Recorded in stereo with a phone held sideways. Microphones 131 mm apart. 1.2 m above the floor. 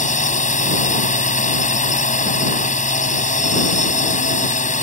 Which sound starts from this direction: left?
A drone, at 0.0 s.